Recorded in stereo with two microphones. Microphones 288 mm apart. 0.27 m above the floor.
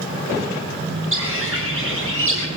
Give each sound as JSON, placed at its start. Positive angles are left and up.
{"t": 1.1, "sound": "a bird", "side_deg": -45, "distance_m": 10.0}